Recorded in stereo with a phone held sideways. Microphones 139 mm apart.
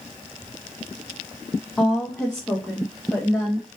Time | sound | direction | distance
1.8 | a woman speaking | 5° left (ahead or behind) | 0.6 m